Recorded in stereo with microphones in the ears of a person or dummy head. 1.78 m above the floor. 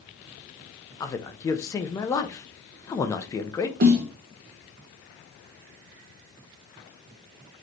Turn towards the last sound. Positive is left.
turn(degrees=-50)  # may be behind; listen again after turning